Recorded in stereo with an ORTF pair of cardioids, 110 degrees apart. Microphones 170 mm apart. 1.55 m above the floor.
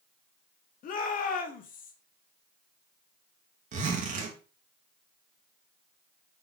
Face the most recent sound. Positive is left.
turn(degrees=-50)